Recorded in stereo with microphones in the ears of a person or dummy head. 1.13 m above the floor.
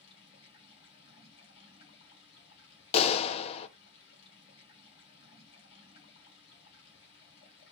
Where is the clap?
30° left (ahead or behind), 0.5 m.